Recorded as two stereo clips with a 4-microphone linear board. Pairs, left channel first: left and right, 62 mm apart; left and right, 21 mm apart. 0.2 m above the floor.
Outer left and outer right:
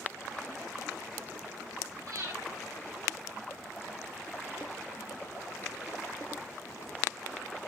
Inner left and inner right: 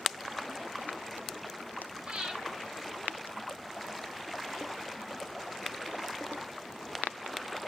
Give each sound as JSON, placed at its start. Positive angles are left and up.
{"t": 2.1, "sound": "breathing", "side_deg": -70, "distance_m": 4.0}